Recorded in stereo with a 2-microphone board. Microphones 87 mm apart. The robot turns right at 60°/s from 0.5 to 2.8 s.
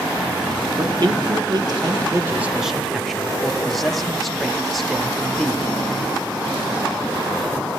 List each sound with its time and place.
0.8 s a man speaking: 120° right, 1.2 m; by 5.6 s straight ahead, 1.2 m